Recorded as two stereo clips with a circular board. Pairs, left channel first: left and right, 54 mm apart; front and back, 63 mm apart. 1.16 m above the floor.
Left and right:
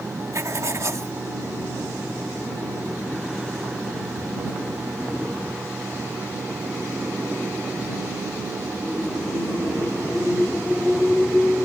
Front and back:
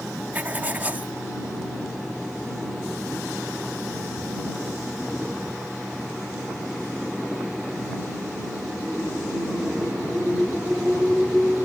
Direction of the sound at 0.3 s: 115° right.